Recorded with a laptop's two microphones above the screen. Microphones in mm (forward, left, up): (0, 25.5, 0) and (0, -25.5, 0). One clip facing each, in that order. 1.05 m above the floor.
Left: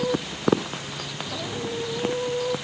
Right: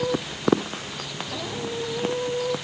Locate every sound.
Only background noise.